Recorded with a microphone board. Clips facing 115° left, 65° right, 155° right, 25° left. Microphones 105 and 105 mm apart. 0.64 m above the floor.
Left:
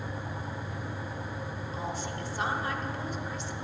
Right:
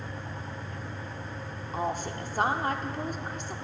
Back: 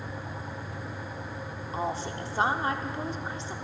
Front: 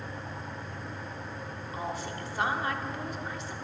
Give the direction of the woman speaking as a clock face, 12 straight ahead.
3 o'clock.